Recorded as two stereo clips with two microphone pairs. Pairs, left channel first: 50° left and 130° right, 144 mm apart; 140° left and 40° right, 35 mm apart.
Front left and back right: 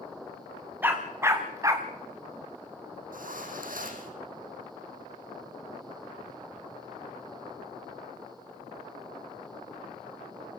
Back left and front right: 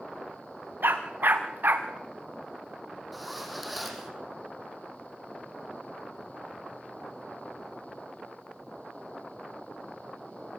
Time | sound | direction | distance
0.8 | a dog barking | 55° right | 5 m
3.1 | a zipper | 130° right | 5.5 m